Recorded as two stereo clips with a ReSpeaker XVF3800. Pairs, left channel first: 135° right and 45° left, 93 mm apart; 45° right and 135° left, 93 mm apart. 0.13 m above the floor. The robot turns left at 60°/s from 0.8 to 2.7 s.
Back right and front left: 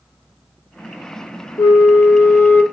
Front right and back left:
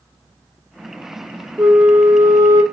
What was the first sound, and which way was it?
A flute, 140° right.